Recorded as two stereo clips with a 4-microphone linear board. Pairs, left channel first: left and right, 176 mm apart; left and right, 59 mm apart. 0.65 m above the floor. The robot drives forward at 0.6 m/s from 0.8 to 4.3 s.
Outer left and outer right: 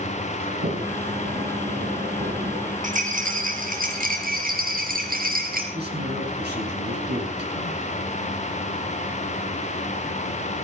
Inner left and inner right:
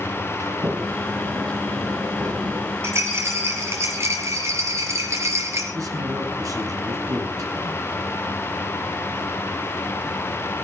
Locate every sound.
0.4 s a sliding door: 70° right (ahead or behind), 9 m; by 2.7 s 75° right (ahead or behind), 8.5 m
2.8 s a rattle: 45° right (ahead or behind), 5.5 m; by 5.6 s 55° right (ahead or behind), 5 m
5.7 s a man speaking: 70° right (ahead or behind), 5.5 m